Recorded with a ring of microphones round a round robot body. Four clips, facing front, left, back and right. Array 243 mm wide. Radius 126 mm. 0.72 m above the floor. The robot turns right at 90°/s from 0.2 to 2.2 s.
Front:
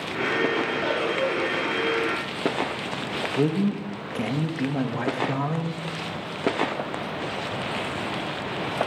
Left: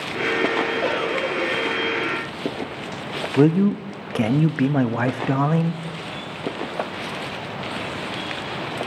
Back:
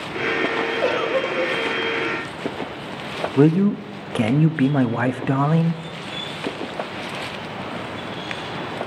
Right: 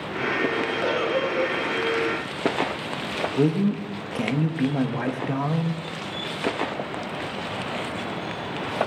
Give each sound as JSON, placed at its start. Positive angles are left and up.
{"t": 0.8, "sound": "a giggle", "azimuth_deg": 170, "distance_m": 3.0}
{"t": 3.4, "sound": "a man speaking", "azimuth_deg": 145, "distance_m": 0.6}